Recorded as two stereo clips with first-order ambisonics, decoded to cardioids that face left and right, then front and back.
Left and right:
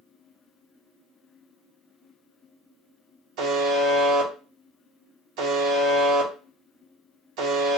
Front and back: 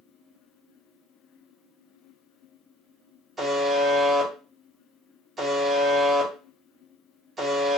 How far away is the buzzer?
About 0.9 m.